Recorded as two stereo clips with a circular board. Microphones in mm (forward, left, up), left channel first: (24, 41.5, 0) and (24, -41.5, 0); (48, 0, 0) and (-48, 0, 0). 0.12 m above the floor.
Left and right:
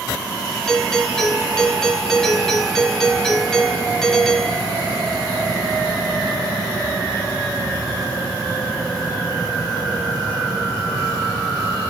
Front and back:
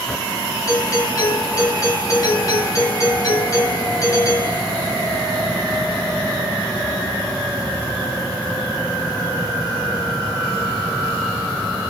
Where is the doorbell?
10° left, 2 m.